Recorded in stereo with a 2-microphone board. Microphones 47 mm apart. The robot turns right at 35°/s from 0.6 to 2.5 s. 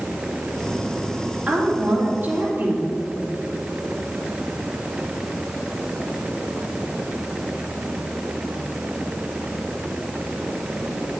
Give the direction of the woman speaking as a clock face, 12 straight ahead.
5 o'clock.